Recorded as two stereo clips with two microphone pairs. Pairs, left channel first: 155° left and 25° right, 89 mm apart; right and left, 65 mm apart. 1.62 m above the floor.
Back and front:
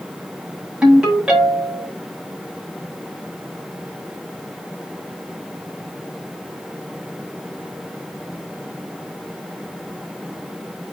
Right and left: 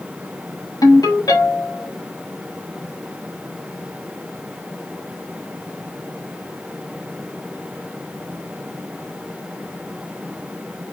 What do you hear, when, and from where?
0.8 s a ringtone: 105° right, 9 m